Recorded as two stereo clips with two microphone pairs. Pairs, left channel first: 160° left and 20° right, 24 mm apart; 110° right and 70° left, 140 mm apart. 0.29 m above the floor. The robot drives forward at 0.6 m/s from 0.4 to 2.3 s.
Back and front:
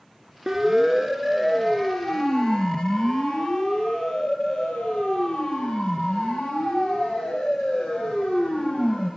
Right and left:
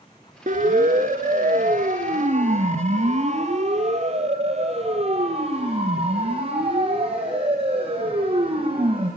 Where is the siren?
50° left, 3 m; by 9.1 s 120° left, 10.5 m.